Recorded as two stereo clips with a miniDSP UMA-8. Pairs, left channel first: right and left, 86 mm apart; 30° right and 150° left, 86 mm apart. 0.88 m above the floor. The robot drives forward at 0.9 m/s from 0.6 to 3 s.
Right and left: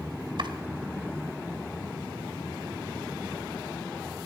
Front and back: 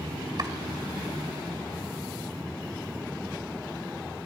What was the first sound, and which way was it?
Chopping, 115° left.